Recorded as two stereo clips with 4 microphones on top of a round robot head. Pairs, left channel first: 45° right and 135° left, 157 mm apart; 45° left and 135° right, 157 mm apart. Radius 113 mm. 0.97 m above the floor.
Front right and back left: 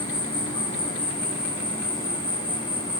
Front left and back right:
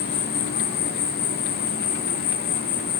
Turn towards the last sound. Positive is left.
turn(degrees=20)